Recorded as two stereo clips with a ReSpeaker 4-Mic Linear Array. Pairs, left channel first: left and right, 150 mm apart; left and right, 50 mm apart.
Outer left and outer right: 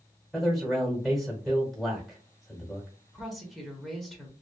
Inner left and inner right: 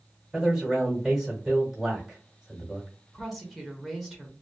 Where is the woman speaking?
Centre (ahead or behind), 0.8 m.